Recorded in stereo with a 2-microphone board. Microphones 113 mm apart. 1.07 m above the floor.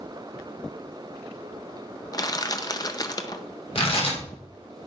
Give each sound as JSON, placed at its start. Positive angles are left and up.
{"t": 2.1, "sound": "crushing", "side_deg": 35, "distance_m": 0.5}
{"t": 3.8, "sound": "tearing paper", "side_deg": 55, "distance_m": 1.7}